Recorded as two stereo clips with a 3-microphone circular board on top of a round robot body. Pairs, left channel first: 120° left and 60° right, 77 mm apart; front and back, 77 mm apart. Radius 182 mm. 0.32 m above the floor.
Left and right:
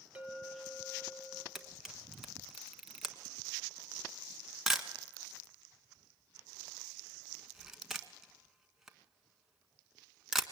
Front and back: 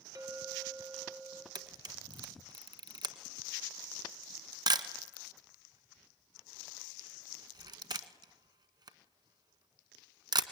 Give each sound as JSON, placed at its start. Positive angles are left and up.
{"t": 0.1, "sound": "a clink", "azimuth_deg": -130, "distance_m": 2.5}
{"t": 1.6, "sound": "a camera shutter", "azimuth_deg": -145, "distance_m": 1.4}